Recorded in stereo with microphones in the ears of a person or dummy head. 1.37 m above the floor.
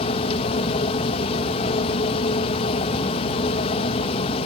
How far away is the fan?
About 1.0 m.